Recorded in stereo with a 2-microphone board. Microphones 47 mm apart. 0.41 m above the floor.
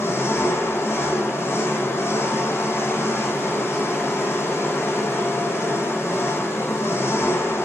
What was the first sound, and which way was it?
An engine running, 65° left (ahead or behind).